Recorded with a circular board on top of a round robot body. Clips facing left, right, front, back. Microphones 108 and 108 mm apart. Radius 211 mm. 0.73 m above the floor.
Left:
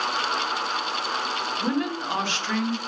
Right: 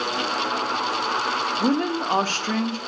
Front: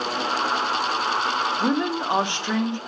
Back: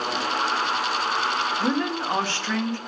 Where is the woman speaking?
65° right, 0.7 m.